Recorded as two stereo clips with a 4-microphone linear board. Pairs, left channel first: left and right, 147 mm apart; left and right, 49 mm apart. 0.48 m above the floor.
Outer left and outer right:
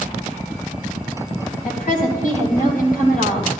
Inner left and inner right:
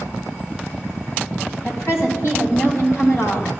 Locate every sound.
1.6 s a woman speaking: 70° left (ahead or behind), 2.5 m